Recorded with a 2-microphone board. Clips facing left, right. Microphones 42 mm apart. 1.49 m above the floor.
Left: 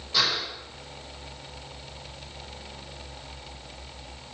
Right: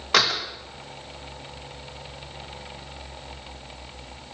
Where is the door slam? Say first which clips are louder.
Right 5 dB; 75° right (ahead or behind), 1.5 m.